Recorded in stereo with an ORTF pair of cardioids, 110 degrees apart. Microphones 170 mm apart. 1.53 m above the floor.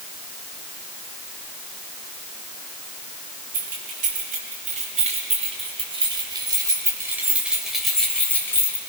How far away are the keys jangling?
About 6.5 m.